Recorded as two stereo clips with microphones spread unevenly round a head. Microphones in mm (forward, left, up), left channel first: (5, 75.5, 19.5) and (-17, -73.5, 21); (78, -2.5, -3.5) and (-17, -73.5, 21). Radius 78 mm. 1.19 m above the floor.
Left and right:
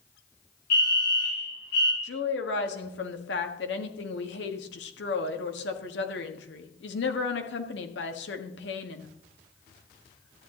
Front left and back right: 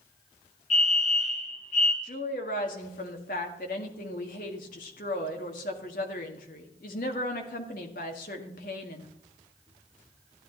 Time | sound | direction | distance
0.7 | a fire alarm | 65° left | 3.5 m
2.0 | a woman speaking | 65° left | 1.7 m